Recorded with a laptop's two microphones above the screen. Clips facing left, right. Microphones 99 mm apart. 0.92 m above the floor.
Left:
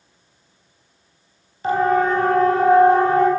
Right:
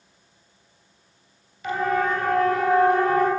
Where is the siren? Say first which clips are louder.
Left 6 dB; 35° left (ahead or behind), 8 m; by 3.3 s 30° left (ahead or behind), 9.5 m.